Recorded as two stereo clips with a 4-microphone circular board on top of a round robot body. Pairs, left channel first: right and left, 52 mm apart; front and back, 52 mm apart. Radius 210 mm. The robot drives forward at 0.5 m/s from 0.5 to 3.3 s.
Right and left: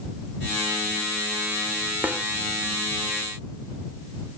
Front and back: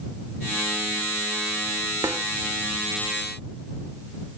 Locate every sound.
2.0 s a snare drum: 150° left